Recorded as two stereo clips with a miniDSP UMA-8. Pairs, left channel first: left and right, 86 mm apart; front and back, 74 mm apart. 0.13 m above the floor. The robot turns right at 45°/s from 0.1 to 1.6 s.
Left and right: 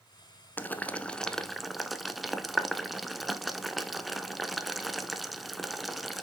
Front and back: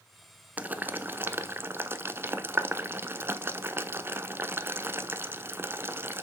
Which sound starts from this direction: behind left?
Boiling, at 0.6 s.